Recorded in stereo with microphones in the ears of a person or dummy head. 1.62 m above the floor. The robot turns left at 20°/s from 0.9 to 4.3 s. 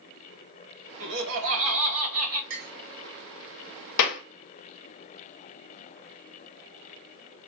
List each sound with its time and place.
1.0 s laughter: 70° right (ahead or behind), 1.6 m; by 2.4 s 80° right, 1.6 m
2.5 s a clink: 55° right (ahead or behind), 1.7 m; by 2.7 s 50° right (ahead or behind), 1.7 m
4.0 s a clap: 70° left (ahead or behind), 1.0 m